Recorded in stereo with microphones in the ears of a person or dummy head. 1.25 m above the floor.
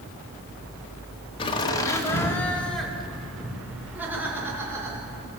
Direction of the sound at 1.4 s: 25° left (ahead or behind).